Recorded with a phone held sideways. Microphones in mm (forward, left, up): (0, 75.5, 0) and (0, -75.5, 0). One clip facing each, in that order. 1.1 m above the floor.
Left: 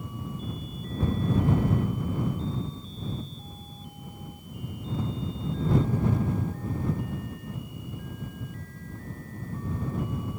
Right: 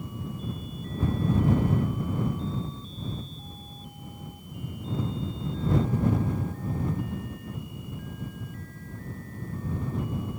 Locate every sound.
Only background noise.